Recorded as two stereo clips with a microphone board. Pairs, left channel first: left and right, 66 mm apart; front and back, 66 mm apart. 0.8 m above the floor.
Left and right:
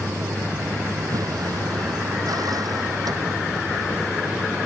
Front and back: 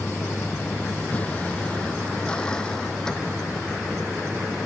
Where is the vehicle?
60° right; by 4.7 s 85° right.